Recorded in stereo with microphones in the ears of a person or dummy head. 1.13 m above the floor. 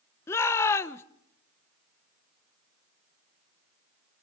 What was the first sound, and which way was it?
A shout, 15° left (ahead or behind).